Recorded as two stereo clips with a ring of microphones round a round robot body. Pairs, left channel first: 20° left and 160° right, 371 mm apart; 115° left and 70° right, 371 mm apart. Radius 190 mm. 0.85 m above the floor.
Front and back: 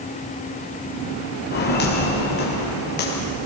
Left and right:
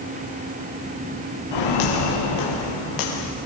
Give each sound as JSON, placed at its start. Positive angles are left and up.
{"t": 1.5, "sound": "footsteps", "azimuth_deg": 90, "distance_m": 5.0}